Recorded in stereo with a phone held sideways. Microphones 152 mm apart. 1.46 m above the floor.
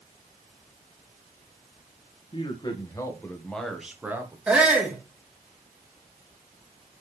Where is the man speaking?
35° left (ahead or behind), 1.9 m; by 4.4 s 15° right (ahead or behind), 1.7 m.